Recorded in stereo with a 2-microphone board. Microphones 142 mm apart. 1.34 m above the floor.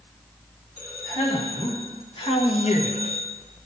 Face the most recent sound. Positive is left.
turn(degrees=30)  # may be behind; listen again after turning